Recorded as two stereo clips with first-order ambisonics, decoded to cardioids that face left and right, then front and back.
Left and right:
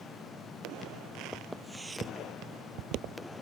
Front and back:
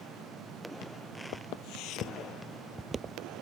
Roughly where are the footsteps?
Ahead.